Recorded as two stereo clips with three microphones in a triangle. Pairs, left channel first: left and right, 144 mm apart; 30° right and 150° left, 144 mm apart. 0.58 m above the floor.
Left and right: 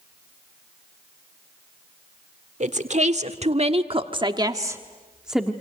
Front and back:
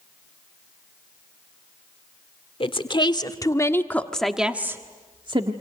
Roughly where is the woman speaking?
Right.